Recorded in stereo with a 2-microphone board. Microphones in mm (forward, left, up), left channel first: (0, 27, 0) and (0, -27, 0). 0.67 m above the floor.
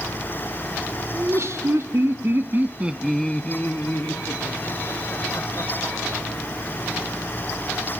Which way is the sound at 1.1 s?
70° right (ahead or behind).